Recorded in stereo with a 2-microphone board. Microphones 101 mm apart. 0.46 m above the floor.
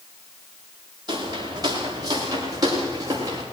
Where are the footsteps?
45° right (ahead or behind), 7.5 m; by 3.4 s 35° right (ahead or behind), 8.5 m.